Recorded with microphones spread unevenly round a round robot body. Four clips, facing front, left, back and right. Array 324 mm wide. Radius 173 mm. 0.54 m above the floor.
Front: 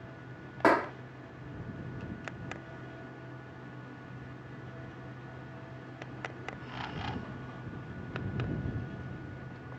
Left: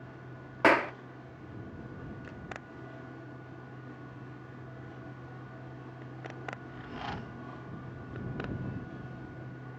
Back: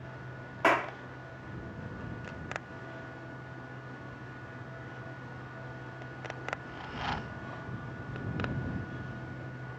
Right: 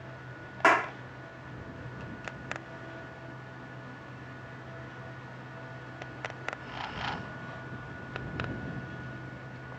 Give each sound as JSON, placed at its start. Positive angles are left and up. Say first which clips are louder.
{"t": 0.6, "sound": "a clap", "louder": "even, front 2 dB", "azimuth_deg": 40}